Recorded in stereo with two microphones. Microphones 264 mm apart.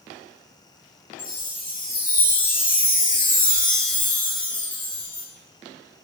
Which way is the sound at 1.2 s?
30° left (ahead or behind).